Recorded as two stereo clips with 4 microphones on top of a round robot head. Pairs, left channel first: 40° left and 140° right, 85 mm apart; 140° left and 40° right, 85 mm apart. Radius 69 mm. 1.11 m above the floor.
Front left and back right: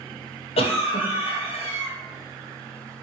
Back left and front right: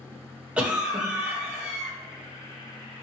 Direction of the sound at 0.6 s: 40° left.